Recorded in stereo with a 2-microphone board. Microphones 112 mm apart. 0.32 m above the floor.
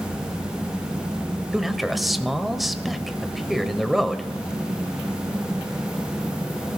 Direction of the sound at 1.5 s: Centre (ahead or behind).